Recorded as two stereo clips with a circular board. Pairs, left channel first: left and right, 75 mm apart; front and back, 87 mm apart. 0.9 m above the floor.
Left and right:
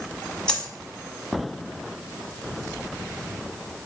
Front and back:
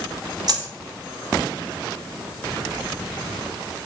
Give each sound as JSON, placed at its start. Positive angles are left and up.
{"t": 0.5, "sound": "a dropped coin", "azimuth_deg": 165, "distance_m": 1.2}